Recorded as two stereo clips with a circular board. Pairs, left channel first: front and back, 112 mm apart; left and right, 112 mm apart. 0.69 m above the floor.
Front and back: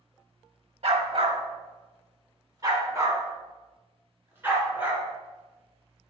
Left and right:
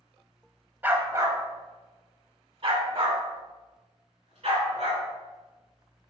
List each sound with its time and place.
0.8 s a dog barking: 160° right, 1.0 m; by 5.0 s 110° right, 2.5 m